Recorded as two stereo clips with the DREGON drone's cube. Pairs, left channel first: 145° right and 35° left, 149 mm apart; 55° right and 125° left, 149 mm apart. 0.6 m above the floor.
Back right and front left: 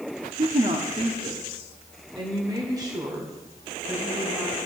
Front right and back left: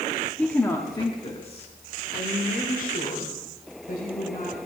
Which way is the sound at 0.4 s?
25° left.